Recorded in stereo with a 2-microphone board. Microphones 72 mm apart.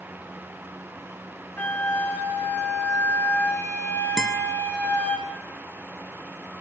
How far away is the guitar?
About 0.9 m.